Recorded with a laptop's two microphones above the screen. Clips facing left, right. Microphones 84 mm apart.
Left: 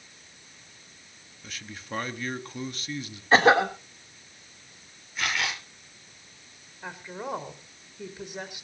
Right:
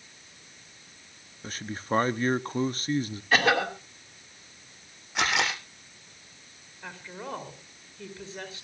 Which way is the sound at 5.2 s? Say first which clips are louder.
Right 3 dB; 85° right.